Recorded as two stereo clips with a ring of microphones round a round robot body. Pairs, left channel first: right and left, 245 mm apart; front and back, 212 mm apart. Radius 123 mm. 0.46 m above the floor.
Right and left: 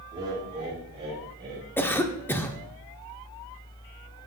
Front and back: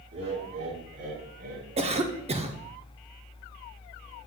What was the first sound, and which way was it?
Laughter, 165° left.